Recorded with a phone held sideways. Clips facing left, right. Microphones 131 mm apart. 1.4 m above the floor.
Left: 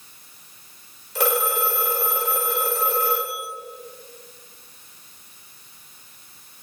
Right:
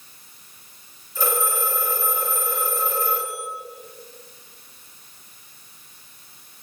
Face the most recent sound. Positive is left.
turn(degrees=80)